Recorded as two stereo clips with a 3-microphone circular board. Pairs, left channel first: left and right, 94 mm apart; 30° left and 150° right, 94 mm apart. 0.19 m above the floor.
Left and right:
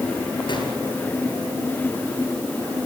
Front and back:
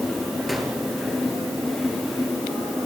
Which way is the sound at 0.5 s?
120° left.